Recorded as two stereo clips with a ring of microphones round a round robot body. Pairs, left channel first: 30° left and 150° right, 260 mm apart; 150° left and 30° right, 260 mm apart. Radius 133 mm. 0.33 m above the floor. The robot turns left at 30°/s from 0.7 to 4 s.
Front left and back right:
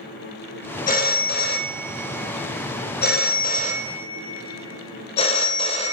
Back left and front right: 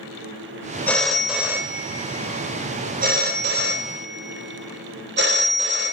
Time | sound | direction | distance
0.9 | a phone ringing | 70° left | 0.7 m